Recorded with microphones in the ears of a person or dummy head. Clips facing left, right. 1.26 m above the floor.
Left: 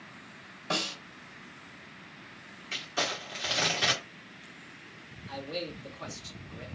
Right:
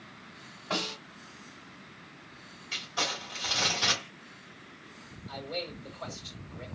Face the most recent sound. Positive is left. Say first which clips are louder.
# left 1 dB
turn(degrees=80)